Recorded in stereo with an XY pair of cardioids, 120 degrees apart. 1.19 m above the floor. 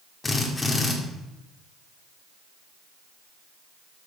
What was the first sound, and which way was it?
A drill, 15° left.